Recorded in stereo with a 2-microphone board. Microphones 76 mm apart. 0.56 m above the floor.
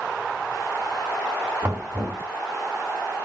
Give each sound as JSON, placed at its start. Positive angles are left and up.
{"t": 1.6, "sound": "knocking", "side_deg": -30, "distance_m": 4.0}